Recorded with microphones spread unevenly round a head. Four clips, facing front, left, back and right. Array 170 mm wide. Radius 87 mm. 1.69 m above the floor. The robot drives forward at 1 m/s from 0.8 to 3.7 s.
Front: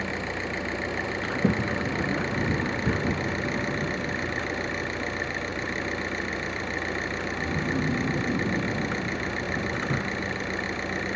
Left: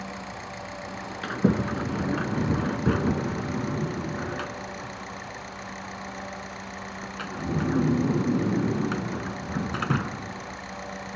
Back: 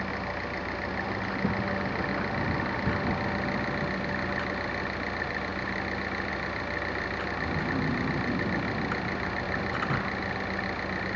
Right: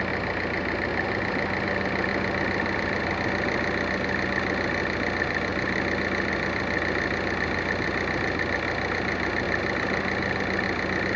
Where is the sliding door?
60° left; by 11.2 s 85° left.